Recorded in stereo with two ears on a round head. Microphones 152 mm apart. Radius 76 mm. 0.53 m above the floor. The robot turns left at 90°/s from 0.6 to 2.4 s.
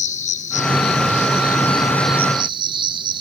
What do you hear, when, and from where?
0.0 s an insect: 135° left, 2.5 m; by 3.2 s 30° right, 2.5 m